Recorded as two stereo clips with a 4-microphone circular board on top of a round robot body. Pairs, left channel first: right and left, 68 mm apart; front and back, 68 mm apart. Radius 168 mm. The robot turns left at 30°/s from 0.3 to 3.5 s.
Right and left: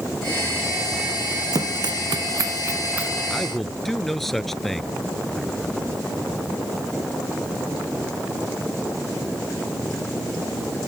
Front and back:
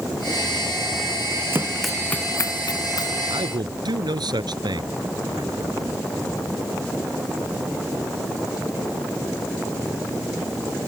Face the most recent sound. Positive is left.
turn(degrees=180)